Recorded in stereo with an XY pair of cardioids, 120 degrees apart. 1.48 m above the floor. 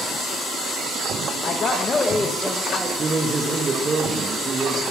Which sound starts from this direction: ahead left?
A man speaking, at 1.4 s.